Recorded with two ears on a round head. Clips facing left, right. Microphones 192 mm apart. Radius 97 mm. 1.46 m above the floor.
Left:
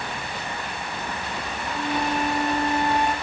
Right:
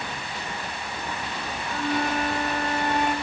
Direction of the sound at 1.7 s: 15° left (ahead or behind).